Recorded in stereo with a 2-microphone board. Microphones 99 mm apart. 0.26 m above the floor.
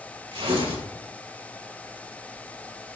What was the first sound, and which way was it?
Tearing paper, 75° right (ahead or behind).